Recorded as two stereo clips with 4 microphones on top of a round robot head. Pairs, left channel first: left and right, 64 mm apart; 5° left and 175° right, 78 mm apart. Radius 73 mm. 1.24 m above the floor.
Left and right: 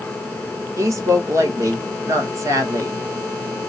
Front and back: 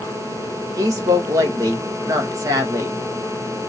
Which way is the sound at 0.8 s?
130° right.